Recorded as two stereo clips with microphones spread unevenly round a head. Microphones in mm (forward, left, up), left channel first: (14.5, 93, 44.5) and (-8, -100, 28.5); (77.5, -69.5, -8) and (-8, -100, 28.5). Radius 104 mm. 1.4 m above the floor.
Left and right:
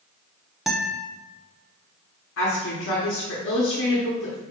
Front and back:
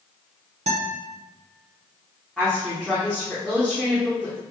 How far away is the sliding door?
No sliding door in this recording.